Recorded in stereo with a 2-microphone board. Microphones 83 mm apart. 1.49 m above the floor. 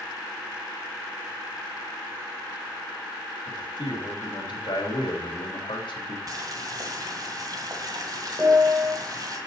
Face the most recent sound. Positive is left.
turn(degrees=-30)  # may be behind; listen again after turning